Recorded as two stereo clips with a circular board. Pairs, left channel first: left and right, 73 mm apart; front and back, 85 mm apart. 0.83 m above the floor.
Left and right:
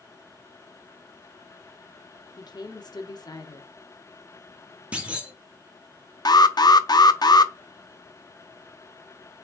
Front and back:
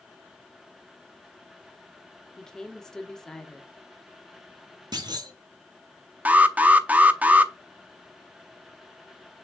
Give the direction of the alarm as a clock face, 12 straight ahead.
8 o'clock.